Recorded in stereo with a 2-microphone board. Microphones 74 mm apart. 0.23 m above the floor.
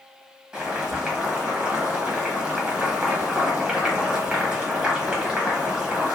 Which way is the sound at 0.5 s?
10° right (ahead or behind).